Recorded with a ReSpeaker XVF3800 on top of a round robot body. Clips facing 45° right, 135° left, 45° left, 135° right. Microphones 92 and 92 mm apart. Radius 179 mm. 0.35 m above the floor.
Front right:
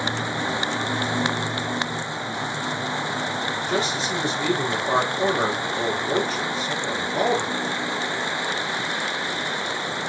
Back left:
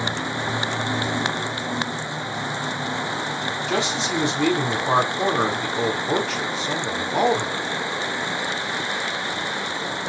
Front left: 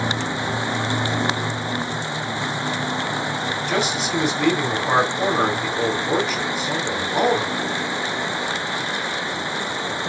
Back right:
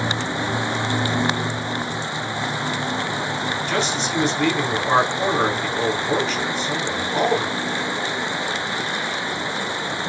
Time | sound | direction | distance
3.7 | a man speaking | 130° left | 4.5 m